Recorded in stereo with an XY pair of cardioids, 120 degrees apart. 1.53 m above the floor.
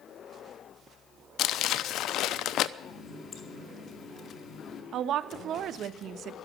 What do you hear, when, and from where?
1.4 s crumpling: 65° left, 0.7 m
2.8 s a running tap: 40° left, 2.5 m
4.9 s a woman speaking: 60° right, 1.0 m